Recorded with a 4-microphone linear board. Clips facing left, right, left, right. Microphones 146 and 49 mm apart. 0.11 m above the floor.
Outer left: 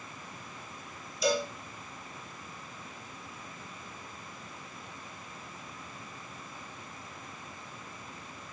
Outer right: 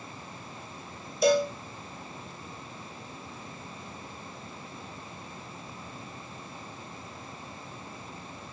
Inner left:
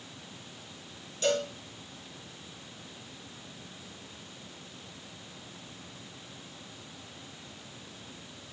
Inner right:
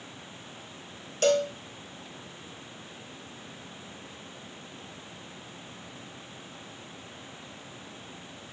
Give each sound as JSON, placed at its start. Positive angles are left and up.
{"t": 1.2, "sound": "a cowbell", "side_deg": -55, "distance_m": 1.0}